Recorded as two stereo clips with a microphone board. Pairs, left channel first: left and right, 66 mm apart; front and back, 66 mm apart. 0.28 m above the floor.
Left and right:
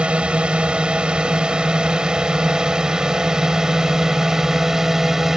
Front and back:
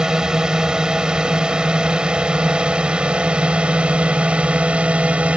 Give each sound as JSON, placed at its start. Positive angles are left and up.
{"t": 0.0, "sound": "a drone", "azimuth_deg": -125}